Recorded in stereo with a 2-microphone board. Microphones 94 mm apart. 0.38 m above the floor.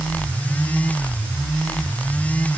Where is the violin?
No violin in this recording.